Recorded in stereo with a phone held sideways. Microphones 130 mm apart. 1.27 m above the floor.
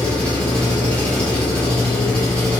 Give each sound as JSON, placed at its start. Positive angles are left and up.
{"t": 0.0, "sound": "an engine running", "side_deg": 10, "distance_m": 1.3}